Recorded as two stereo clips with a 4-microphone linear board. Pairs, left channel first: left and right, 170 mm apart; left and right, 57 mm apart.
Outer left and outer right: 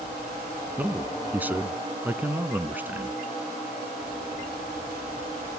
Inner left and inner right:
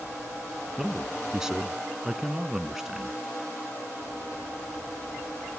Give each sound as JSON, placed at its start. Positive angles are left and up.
{"t": 0.8, "sound": "a man speaking", "side_deg": -10, "distance_m": 1.1}